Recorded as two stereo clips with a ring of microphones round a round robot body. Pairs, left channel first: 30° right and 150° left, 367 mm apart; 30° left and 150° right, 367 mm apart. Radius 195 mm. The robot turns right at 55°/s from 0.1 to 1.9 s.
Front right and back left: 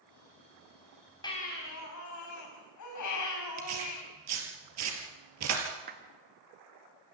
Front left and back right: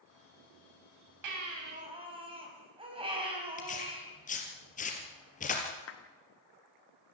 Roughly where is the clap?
Left.